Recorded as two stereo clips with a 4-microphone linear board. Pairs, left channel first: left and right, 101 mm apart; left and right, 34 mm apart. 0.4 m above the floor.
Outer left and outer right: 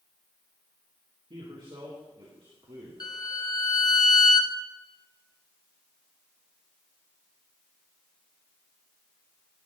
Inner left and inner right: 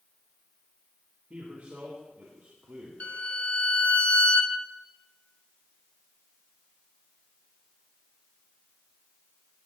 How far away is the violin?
About 0.9 m.